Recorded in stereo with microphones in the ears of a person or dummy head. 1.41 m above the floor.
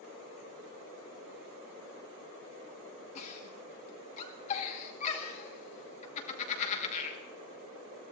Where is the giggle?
40° left (ahead or behind), 2.5 m.